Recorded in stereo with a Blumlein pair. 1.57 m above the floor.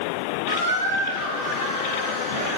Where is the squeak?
35° right, 1.9 m.